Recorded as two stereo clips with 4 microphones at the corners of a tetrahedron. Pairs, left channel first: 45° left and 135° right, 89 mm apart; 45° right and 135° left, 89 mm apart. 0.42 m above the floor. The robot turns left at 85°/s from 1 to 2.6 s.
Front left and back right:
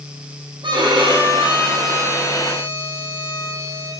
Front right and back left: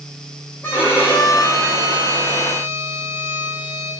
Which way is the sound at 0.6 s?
110° right.